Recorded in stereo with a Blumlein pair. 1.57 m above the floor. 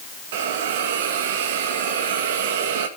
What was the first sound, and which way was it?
A hiss, 55° right.